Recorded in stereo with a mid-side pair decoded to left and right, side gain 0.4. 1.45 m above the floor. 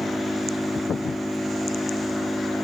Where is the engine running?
10° left.